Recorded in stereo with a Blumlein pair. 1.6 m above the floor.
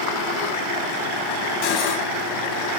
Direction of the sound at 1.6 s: 40° left.